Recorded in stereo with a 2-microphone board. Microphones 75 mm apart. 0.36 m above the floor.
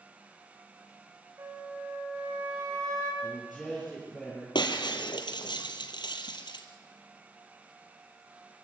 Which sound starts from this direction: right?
A flute, at 1.4 s.